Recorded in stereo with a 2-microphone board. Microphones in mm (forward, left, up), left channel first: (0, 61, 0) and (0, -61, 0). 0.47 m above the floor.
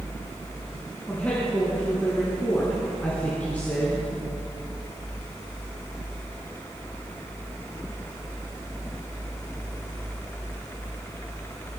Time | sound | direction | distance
1.1 | a woman speaking | 10° left (ahead or behind) | 5 m